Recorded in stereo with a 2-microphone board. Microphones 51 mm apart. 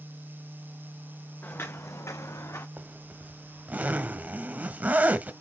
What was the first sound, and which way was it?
Footsteps, 40° left (ahead or behind).